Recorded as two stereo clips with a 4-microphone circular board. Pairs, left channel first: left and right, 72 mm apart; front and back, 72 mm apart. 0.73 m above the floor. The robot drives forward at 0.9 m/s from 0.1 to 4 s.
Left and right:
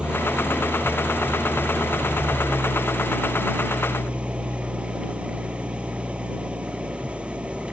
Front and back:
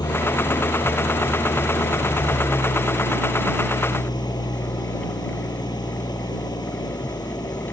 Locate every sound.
0.0 s an engine running: 15° right